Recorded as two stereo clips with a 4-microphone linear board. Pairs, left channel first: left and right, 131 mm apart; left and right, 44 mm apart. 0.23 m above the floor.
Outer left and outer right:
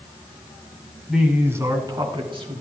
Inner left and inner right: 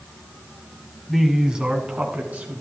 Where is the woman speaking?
Centre (ahead or behind), 1.6 m; by 2.6 s 45° right (ahead or behind), 3 m.